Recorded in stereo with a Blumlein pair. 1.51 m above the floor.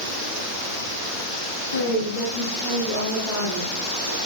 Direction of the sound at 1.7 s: 60° left.